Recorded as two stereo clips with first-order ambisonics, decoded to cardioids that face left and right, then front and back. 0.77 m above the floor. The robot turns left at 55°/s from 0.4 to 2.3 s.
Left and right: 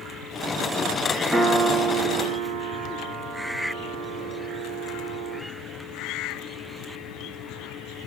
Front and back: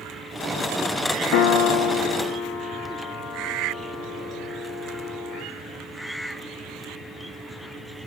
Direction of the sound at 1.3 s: 5° right.